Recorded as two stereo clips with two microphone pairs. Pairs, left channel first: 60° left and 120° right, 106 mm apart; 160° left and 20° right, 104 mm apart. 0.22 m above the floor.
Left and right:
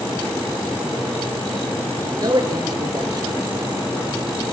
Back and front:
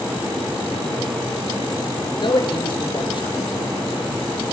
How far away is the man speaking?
About 3 m.